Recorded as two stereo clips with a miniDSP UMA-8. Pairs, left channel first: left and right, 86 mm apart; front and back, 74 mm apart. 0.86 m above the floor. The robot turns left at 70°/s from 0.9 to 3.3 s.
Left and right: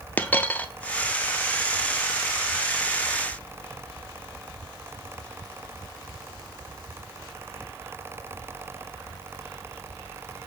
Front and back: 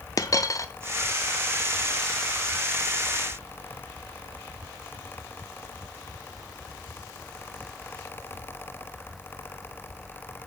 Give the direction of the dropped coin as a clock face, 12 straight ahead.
11 o'clock.